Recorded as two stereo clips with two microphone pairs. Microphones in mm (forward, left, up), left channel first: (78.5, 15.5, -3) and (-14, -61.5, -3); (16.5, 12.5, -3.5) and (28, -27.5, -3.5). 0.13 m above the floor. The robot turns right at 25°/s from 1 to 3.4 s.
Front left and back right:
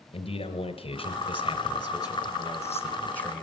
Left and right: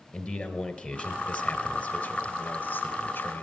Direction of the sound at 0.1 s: 60° left.